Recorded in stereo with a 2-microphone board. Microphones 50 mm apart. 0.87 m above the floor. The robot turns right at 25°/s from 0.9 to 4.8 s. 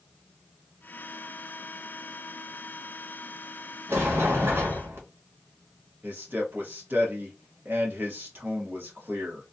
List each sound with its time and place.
3.9 s a sliding door: 60° right (ahead or behind), 0.9 m; by 5.0 s 55° right (ahead or behind), 0.9 m
6.0 s a man speaking: 40° right (ahead or behind), 0.9 m